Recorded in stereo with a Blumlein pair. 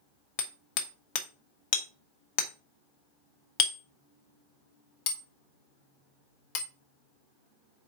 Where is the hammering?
40° left, 1.1 m.